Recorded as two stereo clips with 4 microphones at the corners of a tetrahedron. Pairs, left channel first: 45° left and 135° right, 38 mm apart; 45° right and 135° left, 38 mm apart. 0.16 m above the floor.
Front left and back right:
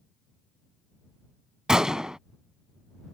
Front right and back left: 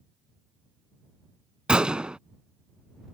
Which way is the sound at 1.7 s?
170° left.